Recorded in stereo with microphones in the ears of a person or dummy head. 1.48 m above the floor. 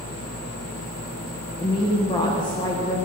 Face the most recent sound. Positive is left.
turn(degrees=15)  # may be behind; listen again after turning